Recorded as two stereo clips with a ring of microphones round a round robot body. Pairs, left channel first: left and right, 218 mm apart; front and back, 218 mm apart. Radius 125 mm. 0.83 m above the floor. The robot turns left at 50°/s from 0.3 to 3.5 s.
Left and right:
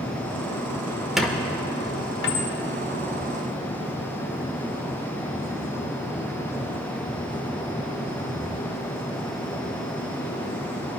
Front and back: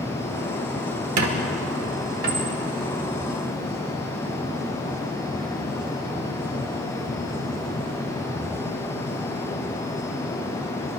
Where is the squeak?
Straight behind, 1.4 m; by 2.5 s 115° left, 1.4 m.